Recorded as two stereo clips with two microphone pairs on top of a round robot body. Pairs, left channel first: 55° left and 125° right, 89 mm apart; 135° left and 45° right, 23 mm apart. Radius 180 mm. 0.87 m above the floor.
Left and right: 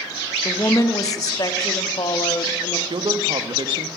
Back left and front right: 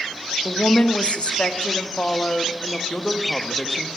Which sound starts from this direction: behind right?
A man speaking, at 2.9 s.